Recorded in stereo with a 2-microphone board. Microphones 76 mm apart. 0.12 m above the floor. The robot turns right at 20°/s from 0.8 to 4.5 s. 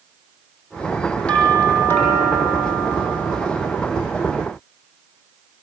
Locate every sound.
1.3 s a doorbell: 15° left, 7 m; by 3.8 s 65° left, 7 m